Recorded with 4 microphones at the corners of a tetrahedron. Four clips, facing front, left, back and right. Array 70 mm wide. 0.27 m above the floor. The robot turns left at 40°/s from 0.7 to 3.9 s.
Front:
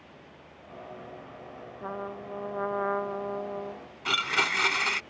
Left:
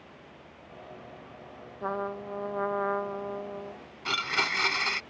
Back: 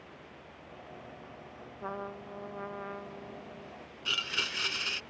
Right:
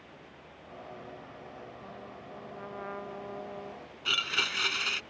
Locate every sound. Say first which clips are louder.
1.8 s a trumpet: left 12 dB, front 3 dB; 85° left; by 3.8 s 5° left
4.0 s a blender: left 2 dB, front 7 dB; 30° left